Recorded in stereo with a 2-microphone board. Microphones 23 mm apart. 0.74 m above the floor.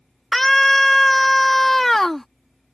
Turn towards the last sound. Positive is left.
turn(degrees=10)  # may be behind; listen again after turning